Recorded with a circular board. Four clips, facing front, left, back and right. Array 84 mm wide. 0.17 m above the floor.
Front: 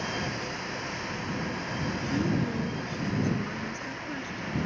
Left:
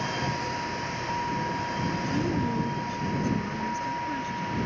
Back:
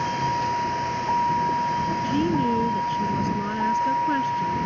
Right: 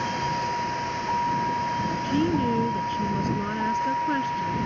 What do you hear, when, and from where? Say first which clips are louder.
0.0 s a vehicle: right 4 dB, back 9 dB; 165° right
2.0 s a woman speaking: right 6 dB, back 5 dB; 140° right